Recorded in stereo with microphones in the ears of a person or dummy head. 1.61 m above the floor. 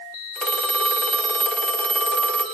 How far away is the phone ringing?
About 0.8 m.